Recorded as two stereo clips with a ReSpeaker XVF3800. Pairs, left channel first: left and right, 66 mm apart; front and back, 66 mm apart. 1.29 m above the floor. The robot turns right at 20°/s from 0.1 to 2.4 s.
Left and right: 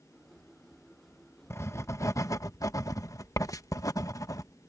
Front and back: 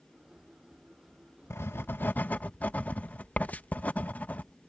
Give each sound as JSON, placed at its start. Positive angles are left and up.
{"t": 1.5, "sound": "writing", "azimuth_deg": 45}